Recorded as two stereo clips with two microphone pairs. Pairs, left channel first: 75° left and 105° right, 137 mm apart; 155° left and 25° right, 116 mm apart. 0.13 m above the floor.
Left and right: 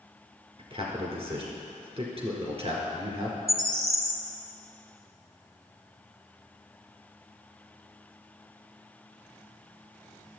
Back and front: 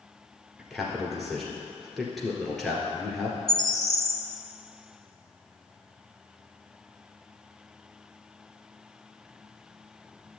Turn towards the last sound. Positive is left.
turn(degrees=-120)